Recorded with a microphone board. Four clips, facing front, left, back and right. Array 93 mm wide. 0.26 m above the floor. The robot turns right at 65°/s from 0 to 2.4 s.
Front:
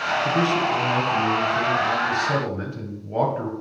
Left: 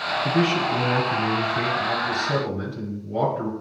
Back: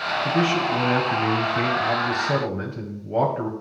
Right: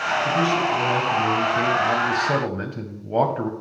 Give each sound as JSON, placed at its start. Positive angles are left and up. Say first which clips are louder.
{"t": 0.2, "sound": "a man speaking", "louder": "left 1 dB, back 1 dB", "azimuth_deg": 120, "distance_m": 1.2}